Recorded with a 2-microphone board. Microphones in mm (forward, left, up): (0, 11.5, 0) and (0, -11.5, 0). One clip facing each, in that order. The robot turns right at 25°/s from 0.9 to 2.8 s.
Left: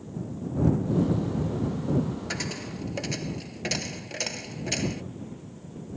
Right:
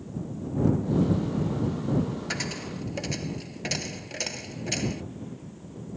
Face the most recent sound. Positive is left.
turn(degrees=5)  # may be behind; listen again after turning